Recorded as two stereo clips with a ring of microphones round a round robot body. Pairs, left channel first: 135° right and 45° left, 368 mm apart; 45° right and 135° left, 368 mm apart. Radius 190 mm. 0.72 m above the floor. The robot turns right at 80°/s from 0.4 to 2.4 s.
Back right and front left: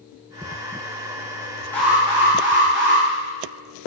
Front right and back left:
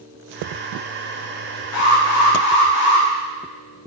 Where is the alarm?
55° right, 1.8 m; by 3.1 s straight ahead, 1.8 m.